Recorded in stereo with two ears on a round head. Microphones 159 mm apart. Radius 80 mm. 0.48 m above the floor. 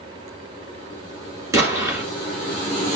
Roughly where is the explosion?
Centre.